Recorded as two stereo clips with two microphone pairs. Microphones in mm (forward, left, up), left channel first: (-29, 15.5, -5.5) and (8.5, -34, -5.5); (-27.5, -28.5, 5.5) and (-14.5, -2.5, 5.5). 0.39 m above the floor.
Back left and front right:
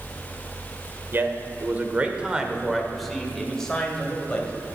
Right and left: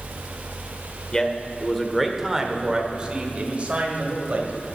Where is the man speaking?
65° right, 1.2 m; by 4.5 s 60° left, 1.9 m.